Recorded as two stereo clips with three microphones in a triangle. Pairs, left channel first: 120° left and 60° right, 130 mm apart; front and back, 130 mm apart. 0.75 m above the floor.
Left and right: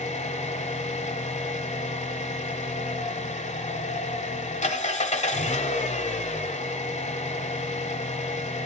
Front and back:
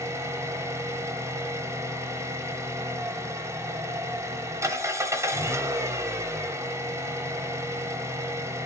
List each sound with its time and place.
0.0 s an engine running: 115° left, 1.0 m